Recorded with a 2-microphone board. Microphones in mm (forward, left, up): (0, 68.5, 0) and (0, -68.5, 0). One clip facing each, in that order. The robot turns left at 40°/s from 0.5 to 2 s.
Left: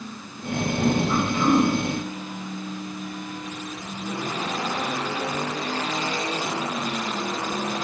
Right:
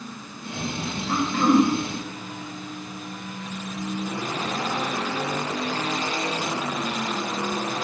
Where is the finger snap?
I don't hear a finger snap.